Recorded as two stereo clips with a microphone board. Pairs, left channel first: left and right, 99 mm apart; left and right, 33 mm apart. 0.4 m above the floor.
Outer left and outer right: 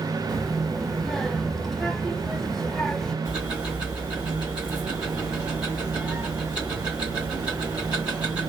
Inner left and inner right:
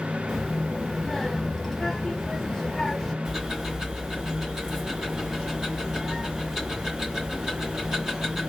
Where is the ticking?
10° right (ahead or behind), 1.8 m.